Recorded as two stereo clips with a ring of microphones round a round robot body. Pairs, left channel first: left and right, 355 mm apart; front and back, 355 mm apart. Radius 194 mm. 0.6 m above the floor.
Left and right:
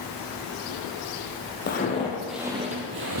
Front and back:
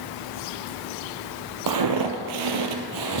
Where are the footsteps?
155° left, 1.2 m; by 3.2 s 140° right, 1.2 m.